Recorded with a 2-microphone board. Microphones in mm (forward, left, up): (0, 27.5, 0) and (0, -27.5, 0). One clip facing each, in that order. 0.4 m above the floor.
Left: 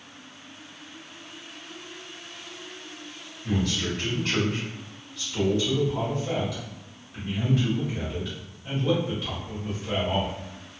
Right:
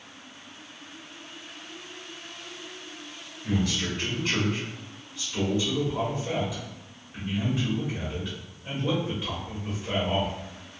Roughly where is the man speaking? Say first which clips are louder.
Left 1 dB; centre.